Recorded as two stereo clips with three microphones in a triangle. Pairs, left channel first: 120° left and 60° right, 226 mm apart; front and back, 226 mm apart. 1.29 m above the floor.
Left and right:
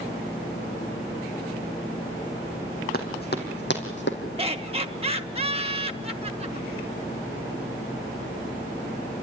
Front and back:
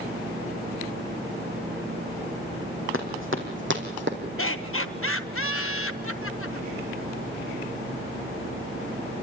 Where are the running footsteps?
165° left, 4 m; by 4.2 s 150° left, 3.5 m.